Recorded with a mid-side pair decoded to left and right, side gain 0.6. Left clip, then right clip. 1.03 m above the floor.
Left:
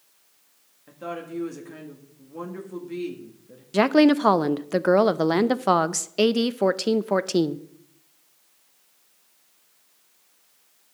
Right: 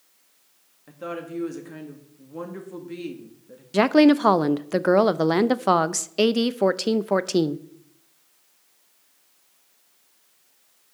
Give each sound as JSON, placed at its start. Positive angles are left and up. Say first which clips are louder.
{"t": 0.9, "sound": "a woman speaking", "louder": "right 1 dB", "azimuth_deg": -10, "distance_m": 1.7}
{"t": 3.7, "sound": "a woman speaking", "louder": "right 1 dB", "azimuth_deg": -5, "distance_m": 0.5}